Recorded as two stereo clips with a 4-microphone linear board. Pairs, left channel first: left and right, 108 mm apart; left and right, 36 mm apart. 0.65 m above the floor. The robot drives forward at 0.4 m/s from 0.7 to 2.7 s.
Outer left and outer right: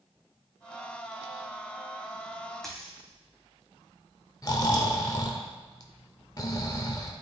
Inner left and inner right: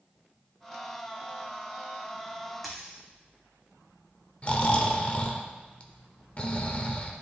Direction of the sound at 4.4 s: 35° left (ahead or behind).